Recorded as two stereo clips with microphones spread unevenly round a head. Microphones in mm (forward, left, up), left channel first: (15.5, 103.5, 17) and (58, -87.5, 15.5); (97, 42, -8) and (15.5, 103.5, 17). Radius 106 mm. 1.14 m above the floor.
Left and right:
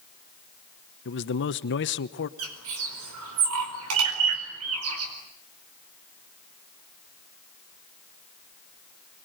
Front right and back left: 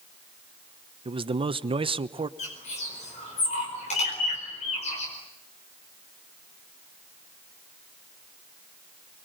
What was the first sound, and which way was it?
A man speaking, 105° left.